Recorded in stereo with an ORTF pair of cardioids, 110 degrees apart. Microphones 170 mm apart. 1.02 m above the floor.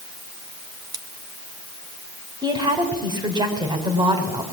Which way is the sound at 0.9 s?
25° right.